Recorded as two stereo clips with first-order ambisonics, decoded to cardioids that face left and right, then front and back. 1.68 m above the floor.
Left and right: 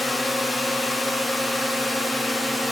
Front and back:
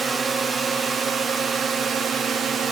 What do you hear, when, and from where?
0.0 s a drone: 170° left; by 2.7 s straight behind